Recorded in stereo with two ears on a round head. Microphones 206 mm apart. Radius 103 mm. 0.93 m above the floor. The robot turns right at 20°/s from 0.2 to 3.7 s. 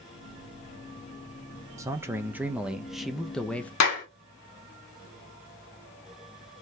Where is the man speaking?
25° right, 0.6 m; by 3.7 s 10° left, 0.6 m.